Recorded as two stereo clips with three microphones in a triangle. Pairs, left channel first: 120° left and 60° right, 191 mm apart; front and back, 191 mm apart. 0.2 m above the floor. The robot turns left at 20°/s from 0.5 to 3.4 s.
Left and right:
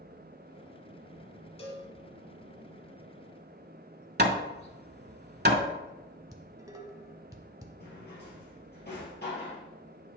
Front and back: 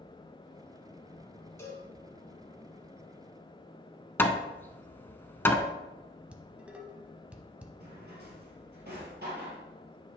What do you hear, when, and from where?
1.6 s a cowbell: 70° left, 1.6 m; by 1.9 s 65° left, 1.6 m
4.2 s hammering: 80° right, 0.7 m
6.3 s dishes clattering: 105° right, 0.8 m
7.8 s a drawer: 150° left, 2.5 m